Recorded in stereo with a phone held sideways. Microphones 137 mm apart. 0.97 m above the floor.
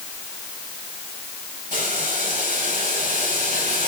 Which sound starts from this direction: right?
Boiling, at 1.7 s.